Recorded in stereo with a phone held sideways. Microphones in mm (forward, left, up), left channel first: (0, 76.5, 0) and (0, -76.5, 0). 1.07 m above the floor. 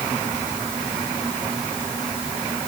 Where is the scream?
I don't hear a scream.